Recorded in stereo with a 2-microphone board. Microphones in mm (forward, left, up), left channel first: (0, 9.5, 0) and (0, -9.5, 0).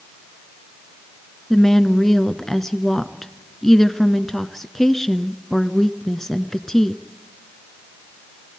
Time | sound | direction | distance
1.5 | a woman speaking | 15° left (ahead or behind) | 1.1 m